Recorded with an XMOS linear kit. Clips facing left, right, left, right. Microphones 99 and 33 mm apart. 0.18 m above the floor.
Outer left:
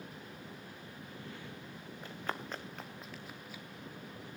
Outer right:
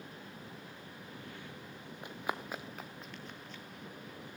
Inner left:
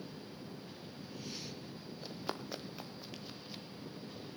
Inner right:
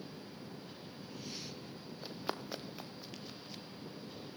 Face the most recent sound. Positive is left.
turn(degrees=10)  # may be behind; listen again after turning